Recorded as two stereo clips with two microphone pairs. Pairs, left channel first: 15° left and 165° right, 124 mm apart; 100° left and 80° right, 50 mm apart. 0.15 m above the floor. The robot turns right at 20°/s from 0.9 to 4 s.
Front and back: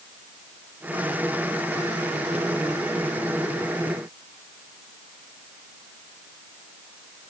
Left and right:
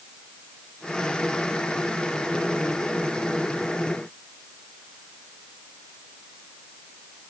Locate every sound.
Only background noise.